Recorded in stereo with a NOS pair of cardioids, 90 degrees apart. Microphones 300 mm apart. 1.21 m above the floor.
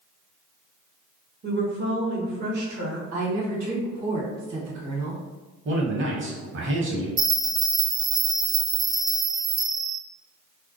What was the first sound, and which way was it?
A woman speaking, 35° right.